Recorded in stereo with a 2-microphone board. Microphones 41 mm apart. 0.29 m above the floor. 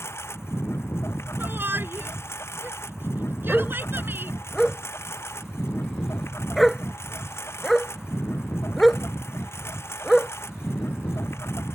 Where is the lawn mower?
80° left.